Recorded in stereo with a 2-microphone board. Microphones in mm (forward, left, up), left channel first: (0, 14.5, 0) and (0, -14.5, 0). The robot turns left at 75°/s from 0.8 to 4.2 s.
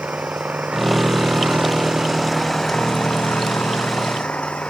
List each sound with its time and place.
0.0 s an engine running: 60° right; by 4.7 s 45° left